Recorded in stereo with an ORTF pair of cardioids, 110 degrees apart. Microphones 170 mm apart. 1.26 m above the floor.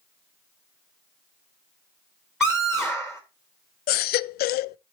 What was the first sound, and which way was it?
A scream, 5° right.